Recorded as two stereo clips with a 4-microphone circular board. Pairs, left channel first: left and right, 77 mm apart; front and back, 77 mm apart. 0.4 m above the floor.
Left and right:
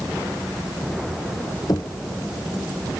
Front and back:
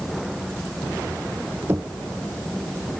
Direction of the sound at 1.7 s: 125° left.